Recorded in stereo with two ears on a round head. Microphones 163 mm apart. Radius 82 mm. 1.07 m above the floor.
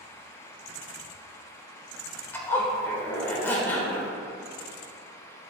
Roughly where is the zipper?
Centre.